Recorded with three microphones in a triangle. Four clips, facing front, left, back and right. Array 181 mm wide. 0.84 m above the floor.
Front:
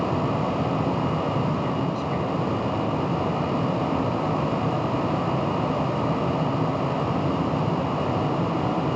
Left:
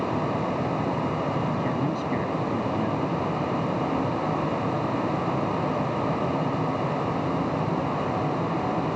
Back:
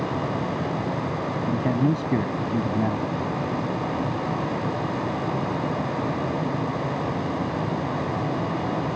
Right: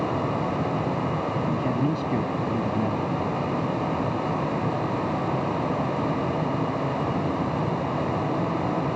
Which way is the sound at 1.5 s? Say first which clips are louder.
Right 1 dB, back 3 dB; 165° right.